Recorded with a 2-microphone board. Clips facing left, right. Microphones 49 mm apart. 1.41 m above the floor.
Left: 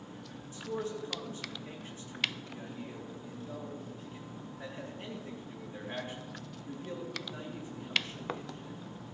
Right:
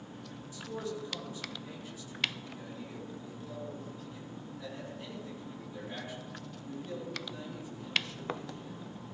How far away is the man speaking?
About 3.5 m.